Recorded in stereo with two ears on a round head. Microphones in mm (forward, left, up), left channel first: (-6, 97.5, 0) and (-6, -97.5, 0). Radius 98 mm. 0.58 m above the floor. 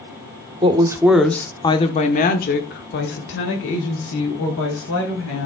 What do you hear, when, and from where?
0.6 s a woman speaking: 25° right (ahead or behind), 1.1 m; by 5.5 s 70° left (ahead or behind), 3.5 m